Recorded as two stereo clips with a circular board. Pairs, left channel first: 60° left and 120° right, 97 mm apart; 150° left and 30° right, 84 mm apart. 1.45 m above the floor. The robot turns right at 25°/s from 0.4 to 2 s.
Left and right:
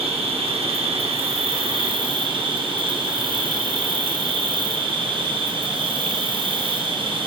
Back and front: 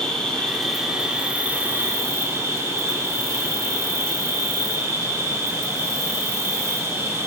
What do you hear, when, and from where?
0.0 s an insect: 130° right, 1.0 m; by 7.3 s 90° right, 1.0 m